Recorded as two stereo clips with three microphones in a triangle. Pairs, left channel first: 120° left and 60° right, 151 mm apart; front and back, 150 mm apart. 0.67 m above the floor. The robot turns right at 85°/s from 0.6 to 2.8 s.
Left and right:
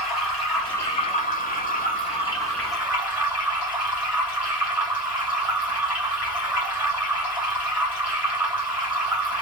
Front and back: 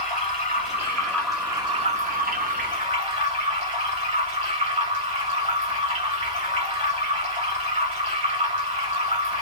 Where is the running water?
30° left, 2.5 m; by 9.4 s 140° right, 2.5 m.